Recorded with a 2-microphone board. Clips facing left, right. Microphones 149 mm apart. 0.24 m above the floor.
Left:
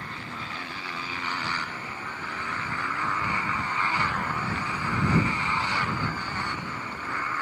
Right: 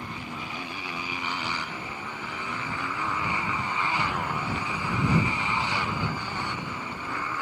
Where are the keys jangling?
No keys jangling in this recording.